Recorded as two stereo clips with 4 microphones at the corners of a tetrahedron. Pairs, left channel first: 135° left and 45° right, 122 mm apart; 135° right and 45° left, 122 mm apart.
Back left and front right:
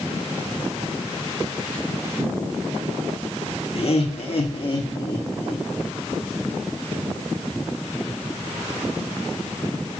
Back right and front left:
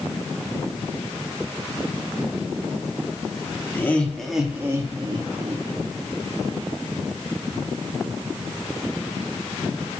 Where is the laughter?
155° left, 1.3 m; by 5.6 s 65° left, 1.3 m.